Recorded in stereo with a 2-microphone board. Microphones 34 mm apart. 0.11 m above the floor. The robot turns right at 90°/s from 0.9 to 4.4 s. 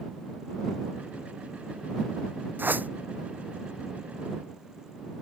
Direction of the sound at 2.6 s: 75° right (ahead or behind).